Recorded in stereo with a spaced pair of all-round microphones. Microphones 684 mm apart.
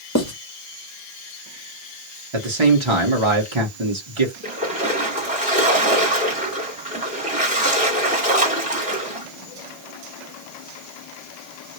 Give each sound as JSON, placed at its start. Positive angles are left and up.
{"t": 0.1, "sound": "writing", "side_deg": 25, "distance_m": 1.2}
{"t": 2.3, "sound": "a man speaking", "side_deg": -40, "distance_m": 1.1}
{"t": 4.4, "sound": "a splash", "side_deg": -10, "distance_m": 2.0}